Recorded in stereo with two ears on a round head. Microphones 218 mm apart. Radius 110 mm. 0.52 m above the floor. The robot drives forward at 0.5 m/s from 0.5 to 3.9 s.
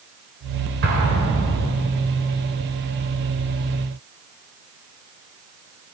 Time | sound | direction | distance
0.8 | an explosion | 50° right (ahead or behind) | 2.5 m